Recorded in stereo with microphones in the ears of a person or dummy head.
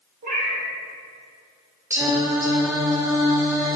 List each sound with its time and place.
0.2 s a cat meowing: 50° right (ahead or behind), 1.3 m
1.9 s singing: 15° right (ahead or behind), 0.8 m